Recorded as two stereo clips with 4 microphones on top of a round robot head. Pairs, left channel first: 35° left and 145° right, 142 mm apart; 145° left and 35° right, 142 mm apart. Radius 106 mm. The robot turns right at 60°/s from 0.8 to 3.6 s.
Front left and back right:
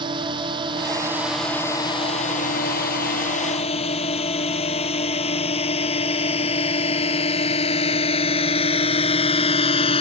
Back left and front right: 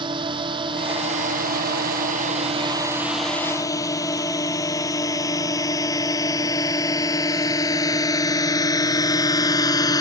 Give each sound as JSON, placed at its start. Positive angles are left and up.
{"t": 0.0, "sound": "a drone", "azimuth_deg": -90}